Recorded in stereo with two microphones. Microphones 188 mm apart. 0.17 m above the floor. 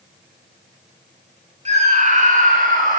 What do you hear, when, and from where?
1.6 s a scream: 35° right (ahead or behind), 1.5 m; by 3.0 s 45° right (ahead or behind), 2.5 m